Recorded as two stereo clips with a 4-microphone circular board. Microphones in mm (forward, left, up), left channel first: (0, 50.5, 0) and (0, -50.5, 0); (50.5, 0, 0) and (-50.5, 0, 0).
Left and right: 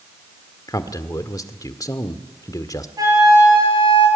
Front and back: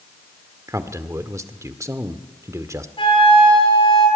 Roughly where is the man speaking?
Behind left.